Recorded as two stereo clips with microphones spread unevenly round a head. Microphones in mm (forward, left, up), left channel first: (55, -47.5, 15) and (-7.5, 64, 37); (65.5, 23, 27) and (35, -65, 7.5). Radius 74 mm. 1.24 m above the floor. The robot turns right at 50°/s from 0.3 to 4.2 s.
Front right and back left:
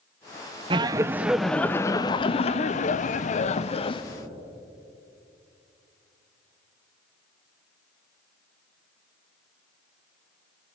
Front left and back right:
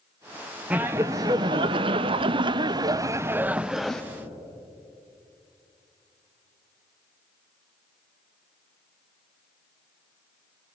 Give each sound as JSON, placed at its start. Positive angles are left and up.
{"t": 0.7, "sound": "laughter", "azimuth_deg": 180, "distance_m": 0.7}